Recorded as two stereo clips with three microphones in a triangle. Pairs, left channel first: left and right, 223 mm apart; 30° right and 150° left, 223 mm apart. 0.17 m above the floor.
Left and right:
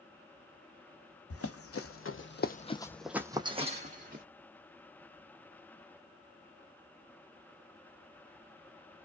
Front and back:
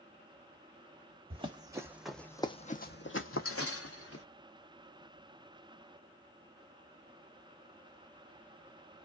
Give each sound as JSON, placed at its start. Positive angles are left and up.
{"t": 1.3, "sound": "running footsteps", "azimuth_deg": 85, "distance_m": 0.9}